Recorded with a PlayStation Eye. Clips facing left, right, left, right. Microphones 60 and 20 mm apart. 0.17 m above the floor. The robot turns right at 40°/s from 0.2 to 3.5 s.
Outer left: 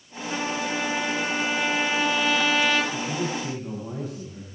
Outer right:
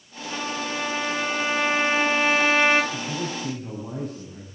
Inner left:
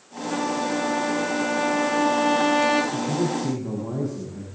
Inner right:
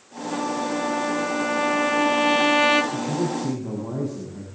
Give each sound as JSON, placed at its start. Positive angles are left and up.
{"t": 0.3, "sound": "a trumpet", "azimuth_deg": 155, "distance_m": 4.5}
{"t": 2.9, "sound": "a man speaking", "side_deg": -20, "distance_m": 9.0}